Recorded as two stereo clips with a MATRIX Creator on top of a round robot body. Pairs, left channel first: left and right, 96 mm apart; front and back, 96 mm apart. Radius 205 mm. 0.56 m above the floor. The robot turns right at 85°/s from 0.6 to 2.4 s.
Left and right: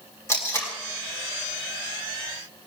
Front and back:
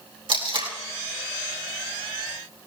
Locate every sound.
0.3 s tape being pulled: 155° left, 4 m; by 0.7 s 165° left, 4 m